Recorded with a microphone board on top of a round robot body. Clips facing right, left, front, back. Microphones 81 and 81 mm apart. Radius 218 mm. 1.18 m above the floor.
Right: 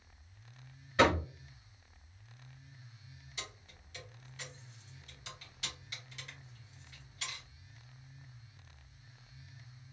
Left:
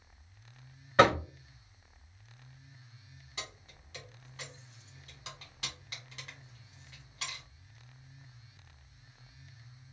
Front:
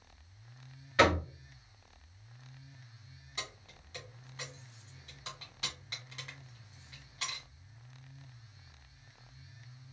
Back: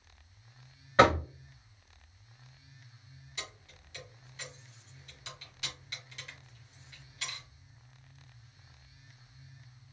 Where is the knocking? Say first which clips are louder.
Left 4 dB, back 4 dB; 125° left, 0.8 m.